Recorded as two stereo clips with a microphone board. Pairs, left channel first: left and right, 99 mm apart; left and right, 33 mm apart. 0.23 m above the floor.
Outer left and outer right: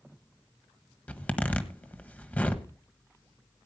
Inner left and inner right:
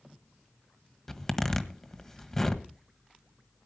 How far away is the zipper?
About 1.2 m.